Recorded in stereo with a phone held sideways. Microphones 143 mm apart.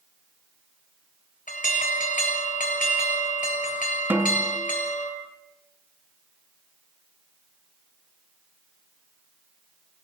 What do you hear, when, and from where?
1.5 s an alarm: 70° left (ahead or behind), 5.5 m
4.1 s a snare drum: 15° right (ahead or behind), 2.5 m